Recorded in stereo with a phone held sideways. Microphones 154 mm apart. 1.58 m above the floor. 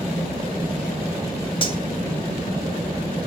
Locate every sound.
1.6 s cutlery clinking: 35° left (ahead or behind), 2.5 m